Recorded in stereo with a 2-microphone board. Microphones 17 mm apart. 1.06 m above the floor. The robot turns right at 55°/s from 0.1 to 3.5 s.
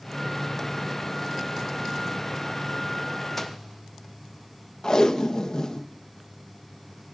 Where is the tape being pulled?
50° left (ahead or behind), 0.5 m.